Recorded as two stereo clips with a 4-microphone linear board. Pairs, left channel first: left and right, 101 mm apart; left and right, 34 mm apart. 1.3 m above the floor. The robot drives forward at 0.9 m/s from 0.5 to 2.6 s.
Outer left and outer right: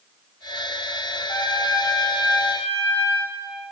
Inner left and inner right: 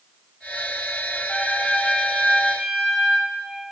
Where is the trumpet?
35° left (ahead or behind), 6 m; by 3.3 s 30° left (ahead or behind), 7 m.